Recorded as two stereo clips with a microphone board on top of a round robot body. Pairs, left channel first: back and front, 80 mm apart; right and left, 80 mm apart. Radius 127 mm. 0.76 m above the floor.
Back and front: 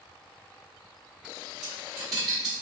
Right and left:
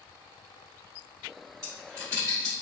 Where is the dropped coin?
40° left, 1.6 m.